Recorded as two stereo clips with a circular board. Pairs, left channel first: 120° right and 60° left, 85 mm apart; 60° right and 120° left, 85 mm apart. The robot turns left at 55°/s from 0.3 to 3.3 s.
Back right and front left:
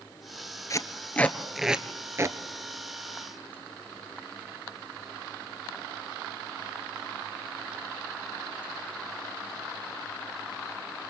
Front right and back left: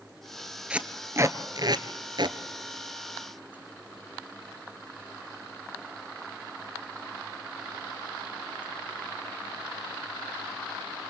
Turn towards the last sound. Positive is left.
turn(degrees=55)